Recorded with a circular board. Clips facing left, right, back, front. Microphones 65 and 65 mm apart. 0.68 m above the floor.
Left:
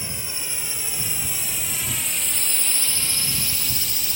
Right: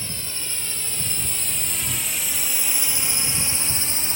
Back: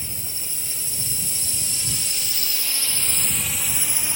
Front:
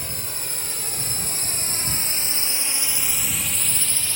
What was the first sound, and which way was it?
A drone, 15° left.